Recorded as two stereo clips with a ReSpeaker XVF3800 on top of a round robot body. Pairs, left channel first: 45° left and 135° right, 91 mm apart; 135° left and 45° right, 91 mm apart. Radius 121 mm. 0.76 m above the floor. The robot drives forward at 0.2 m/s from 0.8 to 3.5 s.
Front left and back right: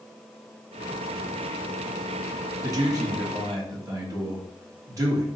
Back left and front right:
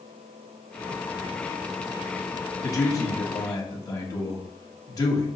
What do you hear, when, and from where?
2.6 s a man speaking: straight behind, 1.0 m